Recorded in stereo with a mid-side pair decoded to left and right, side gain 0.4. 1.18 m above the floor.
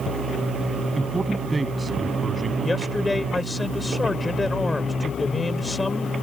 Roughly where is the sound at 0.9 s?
Ahead right.